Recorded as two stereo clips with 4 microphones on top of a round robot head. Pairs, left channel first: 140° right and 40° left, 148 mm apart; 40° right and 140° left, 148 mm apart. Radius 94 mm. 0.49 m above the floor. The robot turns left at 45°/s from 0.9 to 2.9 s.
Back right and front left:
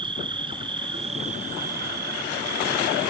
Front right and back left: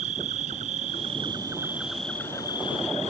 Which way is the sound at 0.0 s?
95° left.